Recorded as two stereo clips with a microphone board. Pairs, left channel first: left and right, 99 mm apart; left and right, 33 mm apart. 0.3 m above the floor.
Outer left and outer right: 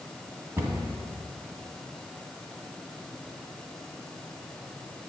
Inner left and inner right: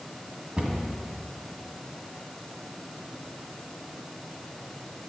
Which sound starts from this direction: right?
A cupboard door, at 0.6 s.